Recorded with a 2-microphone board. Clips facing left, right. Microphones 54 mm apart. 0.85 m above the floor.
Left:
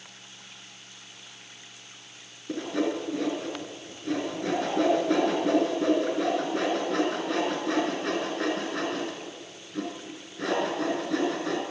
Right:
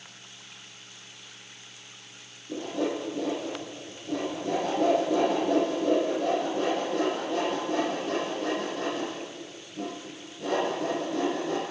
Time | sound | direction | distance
2.5 | sawing | 65° left (ahead or behind) | 5 m